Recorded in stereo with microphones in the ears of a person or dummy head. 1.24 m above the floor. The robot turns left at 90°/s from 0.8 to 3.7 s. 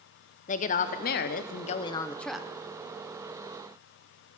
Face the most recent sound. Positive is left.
turn(degrees=-130)